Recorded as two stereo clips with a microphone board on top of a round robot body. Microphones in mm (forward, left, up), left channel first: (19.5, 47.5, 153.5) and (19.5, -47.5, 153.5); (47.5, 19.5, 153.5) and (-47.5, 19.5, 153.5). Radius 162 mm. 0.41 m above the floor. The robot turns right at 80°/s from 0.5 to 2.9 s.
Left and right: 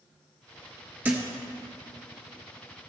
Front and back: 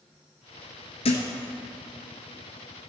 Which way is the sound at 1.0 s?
20° right.